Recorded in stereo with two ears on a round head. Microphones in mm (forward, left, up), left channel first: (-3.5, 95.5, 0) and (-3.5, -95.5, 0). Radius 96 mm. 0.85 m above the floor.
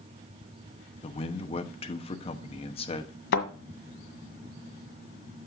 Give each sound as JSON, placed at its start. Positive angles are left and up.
{"t": 1.0, "sound": "a man speaking", "side_deg": 25, "distance_m": 1.0}
{"t": 3.3, "sound": "a thud", "side_deg": 55, "distance_m": 1.7}